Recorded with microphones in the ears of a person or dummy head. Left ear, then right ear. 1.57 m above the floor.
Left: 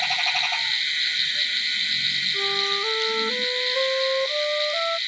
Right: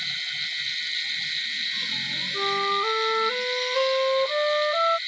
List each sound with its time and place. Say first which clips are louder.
2.3 s a flute: left 1 dB; 65° right (ahead or behind)